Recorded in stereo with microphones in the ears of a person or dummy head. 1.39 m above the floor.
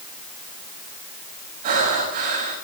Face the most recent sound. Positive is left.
turn(degrees=-50)  # may be behind; listen again after turning